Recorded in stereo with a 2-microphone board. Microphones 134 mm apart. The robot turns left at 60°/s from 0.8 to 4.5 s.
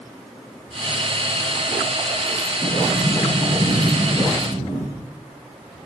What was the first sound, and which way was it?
A sliding door, 175° right.